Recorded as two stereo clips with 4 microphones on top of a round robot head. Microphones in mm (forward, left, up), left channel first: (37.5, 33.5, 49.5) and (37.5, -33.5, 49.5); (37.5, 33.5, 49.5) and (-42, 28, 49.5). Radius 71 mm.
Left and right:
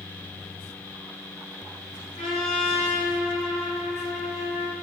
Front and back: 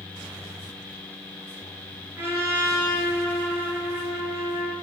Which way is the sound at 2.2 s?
120° left.